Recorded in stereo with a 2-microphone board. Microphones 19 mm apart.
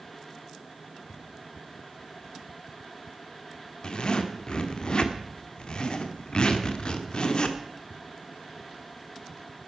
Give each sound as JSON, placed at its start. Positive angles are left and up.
{"t": 3.8, "sound": "a zipper", "side_deg": 45, "distance_m": 1.1}